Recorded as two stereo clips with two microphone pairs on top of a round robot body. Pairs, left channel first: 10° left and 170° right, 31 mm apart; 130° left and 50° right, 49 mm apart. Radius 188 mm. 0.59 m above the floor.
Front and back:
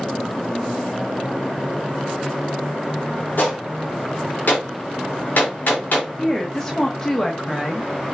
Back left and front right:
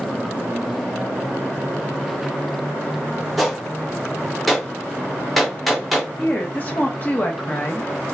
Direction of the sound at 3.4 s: 35° left.